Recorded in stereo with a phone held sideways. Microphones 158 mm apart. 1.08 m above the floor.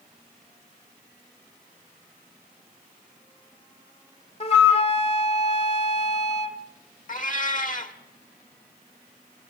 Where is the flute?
40° left (ahead or behind), 1.2 m.